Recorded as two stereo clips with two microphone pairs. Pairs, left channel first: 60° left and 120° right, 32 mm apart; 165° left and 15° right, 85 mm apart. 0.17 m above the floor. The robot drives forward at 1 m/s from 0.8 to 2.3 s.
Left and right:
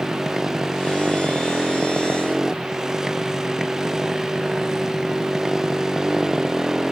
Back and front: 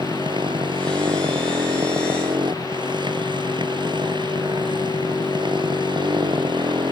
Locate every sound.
0.0 s a motorcycle: 45° right